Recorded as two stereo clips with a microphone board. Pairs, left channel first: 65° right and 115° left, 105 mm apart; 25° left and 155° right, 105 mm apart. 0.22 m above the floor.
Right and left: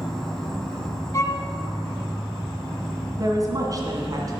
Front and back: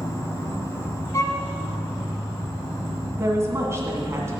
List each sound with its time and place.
0.0 s an insect: 10° left, 1.9 m
1.1 s a violin: 20° right, 0.9 m
3.2 s a woman speaking: 150° left, 2 m